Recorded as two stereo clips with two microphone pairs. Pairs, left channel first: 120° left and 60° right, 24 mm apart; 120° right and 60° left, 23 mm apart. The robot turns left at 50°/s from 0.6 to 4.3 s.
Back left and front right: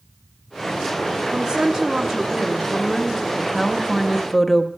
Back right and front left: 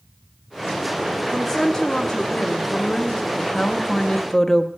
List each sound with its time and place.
1.3 s a woman speaking: 55° right, 0.7 m; by 3.3 s 150° right, 0.7 m
3.4 s a woman speaking: 100° right, 0.6 m; by 4.7 s 145° right, 0.6 m